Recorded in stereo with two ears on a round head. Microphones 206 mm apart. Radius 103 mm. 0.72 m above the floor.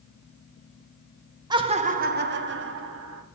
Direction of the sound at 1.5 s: 20° right (ahead or behind).